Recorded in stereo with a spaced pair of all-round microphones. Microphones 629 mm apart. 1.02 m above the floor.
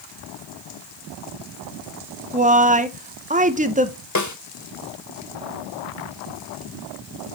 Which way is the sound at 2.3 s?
15° right (ahead or behind).